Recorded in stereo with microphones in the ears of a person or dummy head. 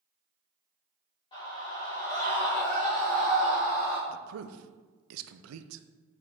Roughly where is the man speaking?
Right.